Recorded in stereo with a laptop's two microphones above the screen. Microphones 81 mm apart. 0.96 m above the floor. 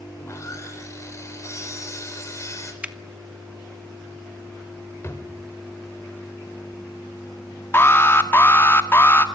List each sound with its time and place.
0.2 s sawing: 40° left (ahead or behind), 4 m
2.8 s a finger snap: 15° right (ahead or behind), 1.1 m
5.0 s a drawer: 35° left (ahead or behind), 2.0 m
7.7 s an alarm: 30° left (ahead or behind), 1.7 m